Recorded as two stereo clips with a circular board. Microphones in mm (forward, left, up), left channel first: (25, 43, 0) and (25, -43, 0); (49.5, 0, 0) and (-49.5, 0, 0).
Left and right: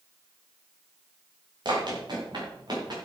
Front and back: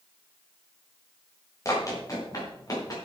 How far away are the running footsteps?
About 5.5 m.